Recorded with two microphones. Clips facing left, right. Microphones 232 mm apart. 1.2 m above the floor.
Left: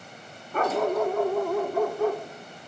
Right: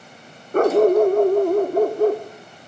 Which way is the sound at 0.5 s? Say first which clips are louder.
Right 11 dB; 45° right (ahead or behind).